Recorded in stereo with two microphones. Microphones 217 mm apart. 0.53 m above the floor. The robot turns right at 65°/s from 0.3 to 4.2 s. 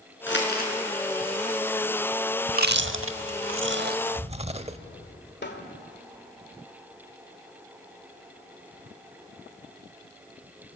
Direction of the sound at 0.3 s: 65° left (ahead or behind).